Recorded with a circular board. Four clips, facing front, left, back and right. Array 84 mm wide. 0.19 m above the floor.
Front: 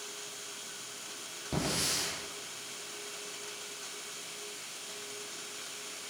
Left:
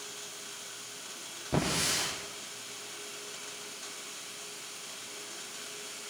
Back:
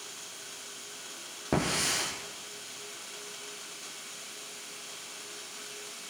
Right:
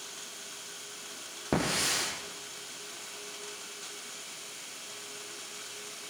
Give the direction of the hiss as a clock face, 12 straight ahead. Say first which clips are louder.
Right 1 dB, back 5 dB; 4 o'clock.